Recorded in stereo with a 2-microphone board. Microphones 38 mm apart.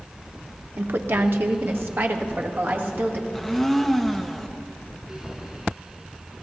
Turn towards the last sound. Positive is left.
turn(degrees=0)  # may be behind; listen again after turning